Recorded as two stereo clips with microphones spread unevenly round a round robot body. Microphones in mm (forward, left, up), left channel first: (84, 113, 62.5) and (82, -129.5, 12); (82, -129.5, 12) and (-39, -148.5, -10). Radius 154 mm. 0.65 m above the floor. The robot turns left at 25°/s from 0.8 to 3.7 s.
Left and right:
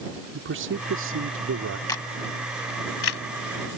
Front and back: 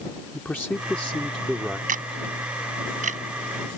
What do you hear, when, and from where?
0.3 s a man speaking: 70° right; by 1.8 s 95° right
1.9 s a camera shutter: 170° left; by 3.2 s 135° left